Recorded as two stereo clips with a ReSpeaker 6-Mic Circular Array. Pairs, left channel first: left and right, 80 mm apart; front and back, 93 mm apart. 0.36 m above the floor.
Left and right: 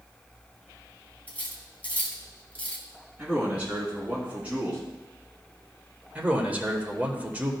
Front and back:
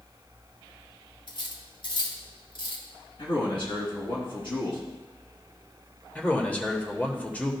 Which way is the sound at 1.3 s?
20° left.